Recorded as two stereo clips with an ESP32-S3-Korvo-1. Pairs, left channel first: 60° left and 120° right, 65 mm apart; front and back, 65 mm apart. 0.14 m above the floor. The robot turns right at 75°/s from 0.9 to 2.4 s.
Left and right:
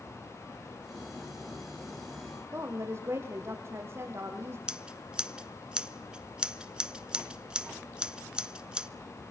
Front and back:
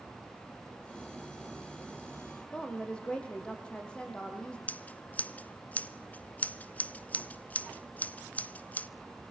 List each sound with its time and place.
2.5 s a woman speaking: 70° right, 5 m
4.7 s scissors: 50° right, 0.6 m